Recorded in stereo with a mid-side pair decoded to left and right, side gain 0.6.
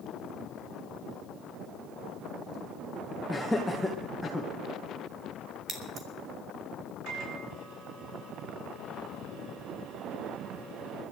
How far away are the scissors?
About 3.5 m.